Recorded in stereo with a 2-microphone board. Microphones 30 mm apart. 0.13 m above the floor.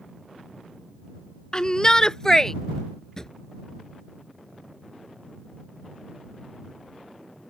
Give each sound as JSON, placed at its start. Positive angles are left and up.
{"t": 1.5, "sound": "a shout", "side_deg": 30}
{"t": 3.2, "sound": "a drawer", "side_deg": 20}